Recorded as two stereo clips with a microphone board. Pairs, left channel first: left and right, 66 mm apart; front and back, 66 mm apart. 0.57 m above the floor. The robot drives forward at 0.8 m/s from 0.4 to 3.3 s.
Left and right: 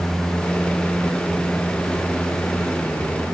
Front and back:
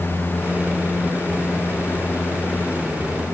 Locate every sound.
Only background noise.